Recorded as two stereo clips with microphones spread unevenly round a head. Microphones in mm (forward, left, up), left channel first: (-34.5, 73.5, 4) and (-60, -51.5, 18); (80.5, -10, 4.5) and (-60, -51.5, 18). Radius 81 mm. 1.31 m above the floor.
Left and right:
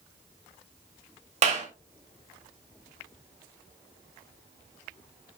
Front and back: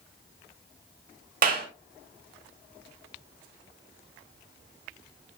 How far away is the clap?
About 3 m.